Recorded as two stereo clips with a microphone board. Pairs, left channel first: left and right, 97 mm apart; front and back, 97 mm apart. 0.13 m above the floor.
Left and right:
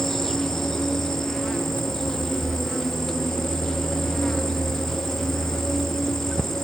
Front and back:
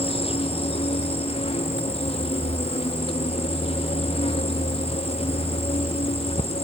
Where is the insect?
5° left.